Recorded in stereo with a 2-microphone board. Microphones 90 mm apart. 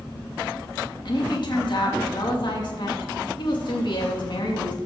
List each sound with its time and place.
1.1 s a woman speaking: 60° left (ahead or behind), 2.5 m